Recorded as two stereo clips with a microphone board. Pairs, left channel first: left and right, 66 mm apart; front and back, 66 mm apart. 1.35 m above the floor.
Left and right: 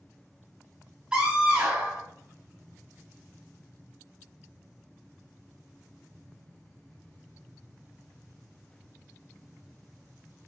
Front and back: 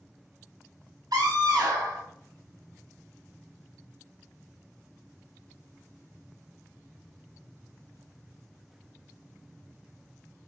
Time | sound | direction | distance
1.1 | a scream | 165° right | 1.1 m